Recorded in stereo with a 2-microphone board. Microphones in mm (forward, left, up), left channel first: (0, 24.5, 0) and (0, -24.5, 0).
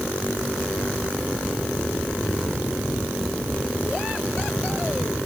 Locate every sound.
Only background noise.